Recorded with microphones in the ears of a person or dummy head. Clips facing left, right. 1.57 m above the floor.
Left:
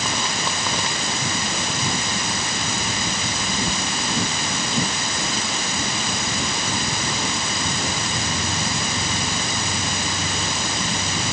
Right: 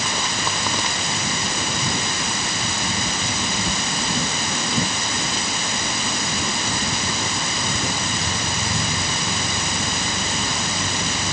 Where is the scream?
No scream in this recording.